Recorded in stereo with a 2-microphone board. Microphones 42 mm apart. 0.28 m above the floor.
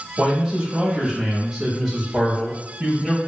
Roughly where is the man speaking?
Centre.